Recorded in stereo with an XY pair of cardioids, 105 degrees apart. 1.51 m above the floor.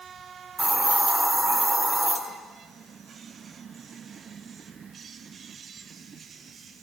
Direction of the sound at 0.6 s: 30° right.